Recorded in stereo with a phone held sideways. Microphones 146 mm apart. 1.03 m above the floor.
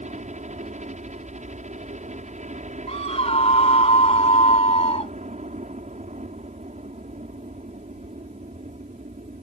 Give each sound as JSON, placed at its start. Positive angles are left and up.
{"t": 0.0, "sound": "a helicopter", "side_deg": -55}
{"t": 2.9, "sound": "a scream", "side_deg": 45}